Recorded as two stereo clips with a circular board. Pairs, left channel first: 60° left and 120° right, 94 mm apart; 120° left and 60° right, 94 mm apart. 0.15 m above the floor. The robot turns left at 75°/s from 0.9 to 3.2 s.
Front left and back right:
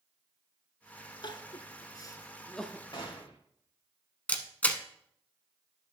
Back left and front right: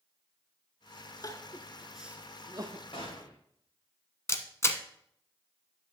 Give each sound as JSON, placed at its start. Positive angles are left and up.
{"t": 1.2, "sound": "crying", "azimuth_deg": 80, "distance_m": 0.9}
{"t": 2.9, "sound": "a gunshot", "azimuth_deg": 100, "distance_m": 3.0}
{"t": 4.3, "sound": "a camera shutter", "azimuth_deg": 115, "distance_m": 0.9}